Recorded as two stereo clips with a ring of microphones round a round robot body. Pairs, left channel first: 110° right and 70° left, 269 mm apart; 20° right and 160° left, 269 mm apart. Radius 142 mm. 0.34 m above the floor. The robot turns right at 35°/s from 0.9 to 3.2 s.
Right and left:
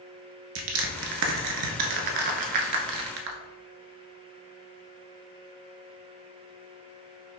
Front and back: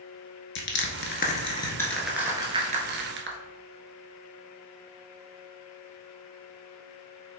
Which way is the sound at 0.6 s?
25° left.